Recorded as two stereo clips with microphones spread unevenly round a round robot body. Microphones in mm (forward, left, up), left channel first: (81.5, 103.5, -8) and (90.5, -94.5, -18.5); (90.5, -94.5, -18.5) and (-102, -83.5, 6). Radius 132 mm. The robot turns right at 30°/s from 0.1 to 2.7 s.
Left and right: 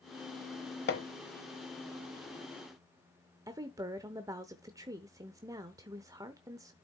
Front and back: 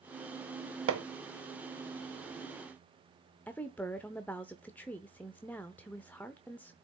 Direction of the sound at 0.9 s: 145° left.